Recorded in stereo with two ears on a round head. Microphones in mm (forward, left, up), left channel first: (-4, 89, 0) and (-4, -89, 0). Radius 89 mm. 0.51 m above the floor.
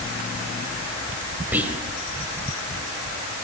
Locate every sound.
1.5 s whispering: 10° right (ahead or behind), 2 m